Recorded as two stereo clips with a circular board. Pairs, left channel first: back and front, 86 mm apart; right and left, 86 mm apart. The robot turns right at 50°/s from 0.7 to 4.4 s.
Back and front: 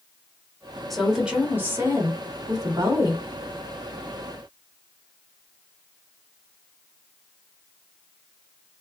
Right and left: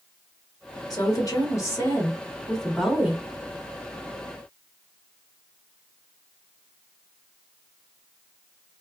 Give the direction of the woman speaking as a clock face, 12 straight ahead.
3 o'clock.